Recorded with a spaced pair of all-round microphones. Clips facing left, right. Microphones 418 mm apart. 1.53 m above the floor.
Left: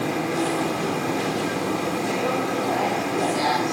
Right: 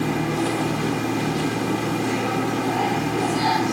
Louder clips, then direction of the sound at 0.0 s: Right 2 dB; 25° right (ahead or behind).